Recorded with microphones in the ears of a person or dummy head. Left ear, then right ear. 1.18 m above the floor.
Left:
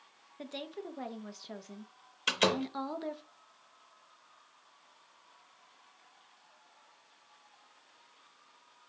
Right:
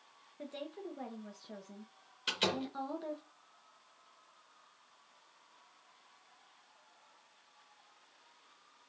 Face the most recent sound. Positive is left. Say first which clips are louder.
# left 5 dB
turn(degrees=25)  # may be behind; listen again after turning